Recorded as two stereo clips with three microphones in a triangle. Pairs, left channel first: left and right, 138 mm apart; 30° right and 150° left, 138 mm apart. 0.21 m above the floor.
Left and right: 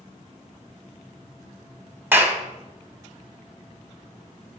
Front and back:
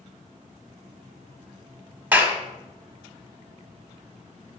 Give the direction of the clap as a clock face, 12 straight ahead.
5 o'clock.